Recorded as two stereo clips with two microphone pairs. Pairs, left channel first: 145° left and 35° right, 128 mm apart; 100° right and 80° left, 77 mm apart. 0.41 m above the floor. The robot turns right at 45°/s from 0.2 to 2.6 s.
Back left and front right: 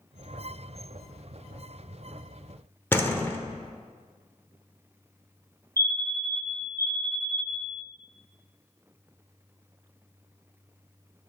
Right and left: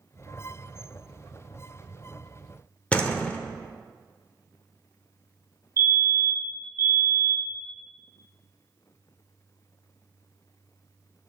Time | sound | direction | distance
2.9 | a door slam | 160° right | 0.9 m
5.8 | a fire alarm | 90° left | 2 m